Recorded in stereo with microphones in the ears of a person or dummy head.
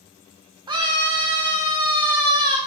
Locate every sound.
0.7 s a scream: 25° right (ahead or behind), 0.6 m